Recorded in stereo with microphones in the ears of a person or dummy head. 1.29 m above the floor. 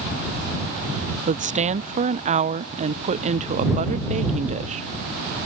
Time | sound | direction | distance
1.3 | a woman speaking | 35° right (ahead or behind) | ?